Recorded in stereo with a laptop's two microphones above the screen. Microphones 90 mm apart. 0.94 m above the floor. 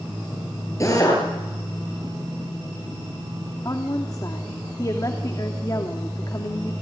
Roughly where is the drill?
Left.